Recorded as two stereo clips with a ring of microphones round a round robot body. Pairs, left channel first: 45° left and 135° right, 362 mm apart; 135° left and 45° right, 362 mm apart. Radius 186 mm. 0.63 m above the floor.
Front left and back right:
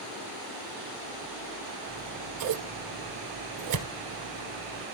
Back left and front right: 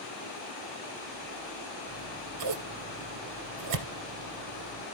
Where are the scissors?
90° right, 2.5 m.